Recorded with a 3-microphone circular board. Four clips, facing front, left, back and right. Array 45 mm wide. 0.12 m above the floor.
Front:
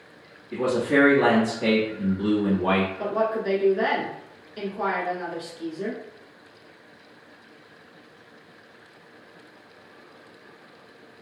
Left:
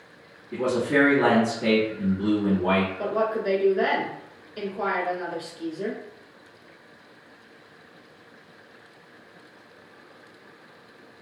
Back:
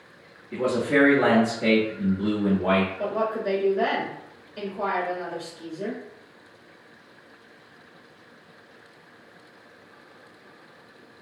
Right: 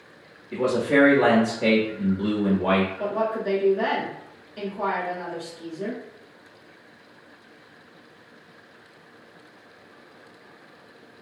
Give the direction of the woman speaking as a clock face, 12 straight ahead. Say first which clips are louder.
Even, front 1 dB; 10 o'clock.